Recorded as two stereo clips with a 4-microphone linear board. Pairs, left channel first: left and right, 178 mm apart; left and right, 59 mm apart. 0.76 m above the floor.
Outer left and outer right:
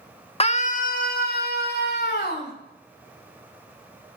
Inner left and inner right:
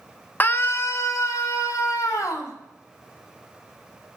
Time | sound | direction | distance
0.4 | a scream | 35° left (ahead or behind) | 0.8 m